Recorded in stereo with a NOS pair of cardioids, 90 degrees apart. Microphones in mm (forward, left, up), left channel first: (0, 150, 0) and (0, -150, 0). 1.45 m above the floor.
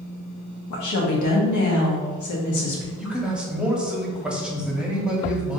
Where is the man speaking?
5° right, 1.0 m.